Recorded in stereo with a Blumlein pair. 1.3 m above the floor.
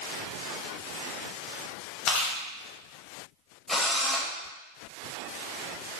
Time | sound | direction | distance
2.1 | chewing | 40° left | 1.1 m
3.7 | a drill | 5° left | 0.9 m